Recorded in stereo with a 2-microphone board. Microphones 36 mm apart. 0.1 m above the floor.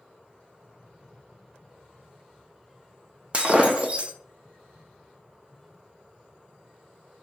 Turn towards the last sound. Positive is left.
turn(degrees=-35)  # may be behind; listen again after turning